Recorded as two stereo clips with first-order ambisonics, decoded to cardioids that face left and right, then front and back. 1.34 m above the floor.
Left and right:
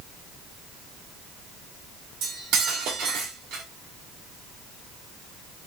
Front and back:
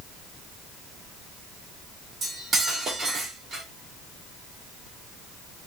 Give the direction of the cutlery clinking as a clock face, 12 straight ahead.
4 o'clock.